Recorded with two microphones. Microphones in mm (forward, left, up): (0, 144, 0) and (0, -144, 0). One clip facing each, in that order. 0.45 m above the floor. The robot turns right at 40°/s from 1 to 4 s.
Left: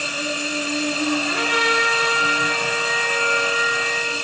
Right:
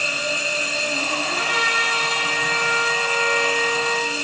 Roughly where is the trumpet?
Left.